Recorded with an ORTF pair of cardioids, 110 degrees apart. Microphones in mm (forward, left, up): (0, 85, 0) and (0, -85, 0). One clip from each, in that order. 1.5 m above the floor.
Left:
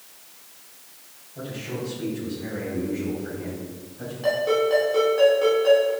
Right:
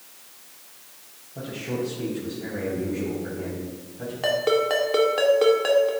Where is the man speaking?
35° right, 4 m; by 4.1 s 10° right, 4 m.